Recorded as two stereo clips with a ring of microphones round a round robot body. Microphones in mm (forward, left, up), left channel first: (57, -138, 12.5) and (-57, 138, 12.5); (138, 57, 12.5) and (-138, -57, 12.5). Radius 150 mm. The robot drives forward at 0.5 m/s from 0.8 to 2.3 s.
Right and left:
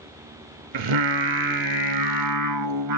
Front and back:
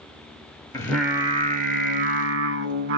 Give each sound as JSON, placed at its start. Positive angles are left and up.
{"t": 0.7, "sound": "singing", "azimuth_deg": 105, "distance_m": 0.5}